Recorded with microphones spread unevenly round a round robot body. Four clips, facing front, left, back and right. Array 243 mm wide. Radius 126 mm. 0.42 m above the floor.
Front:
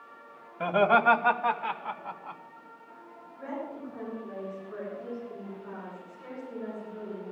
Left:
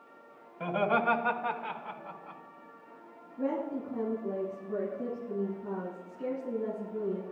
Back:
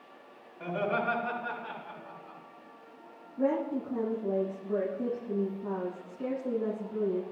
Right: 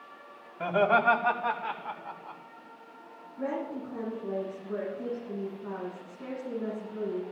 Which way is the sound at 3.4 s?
165° right.